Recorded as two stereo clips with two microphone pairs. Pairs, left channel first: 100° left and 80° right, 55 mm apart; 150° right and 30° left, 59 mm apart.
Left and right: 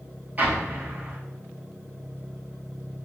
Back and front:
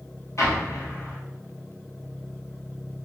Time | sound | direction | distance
0.4 | an explosion | 130° right | 0.9 m